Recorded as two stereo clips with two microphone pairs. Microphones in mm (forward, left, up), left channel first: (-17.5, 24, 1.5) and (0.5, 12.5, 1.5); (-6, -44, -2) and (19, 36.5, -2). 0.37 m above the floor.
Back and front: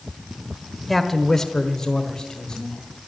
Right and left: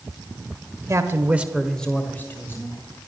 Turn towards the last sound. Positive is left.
turn(degrees=-160)